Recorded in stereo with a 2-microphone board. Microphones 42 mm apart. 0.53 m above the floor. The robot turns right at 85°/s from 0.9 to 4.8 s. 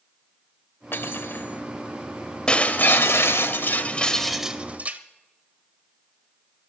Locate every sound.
0.9 s cutlery clinking: 75° left, 1.0 m; by 1.6 s 135° left, 1.0 m
2.5 s breaking glass: 20° left, 0.8 m; by 5.0 s 140° right, 0.8 m